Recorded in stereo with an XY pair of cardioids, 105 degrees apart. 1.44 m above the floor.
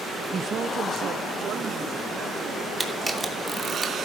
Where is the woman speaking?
30° right, 0.6 m; by 2.7 s 60° right, 3 m.